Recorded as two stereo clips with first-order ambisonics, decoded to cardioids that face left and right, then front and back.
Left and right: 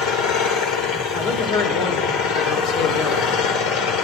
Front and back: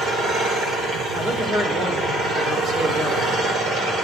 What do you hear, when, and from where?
0.0 s an engine running: 115° left, 2 m
1.1 s a man speaking: 115° left, 2.5 m